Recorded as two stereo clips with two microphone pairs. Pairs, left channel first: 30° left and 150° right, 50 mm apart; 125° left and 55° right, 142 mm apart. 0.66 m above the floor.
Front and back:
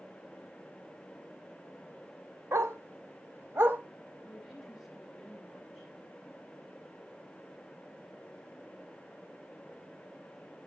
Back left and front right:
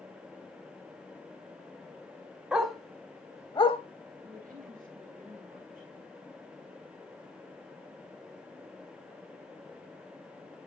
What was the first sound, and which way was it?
A dog barking, 140° right.